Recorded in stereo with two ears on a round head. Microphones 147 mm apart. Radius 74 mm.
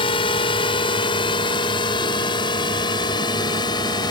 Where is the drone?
35° left (ahead or behind); by 4.1 s 30° left (ahead or behind).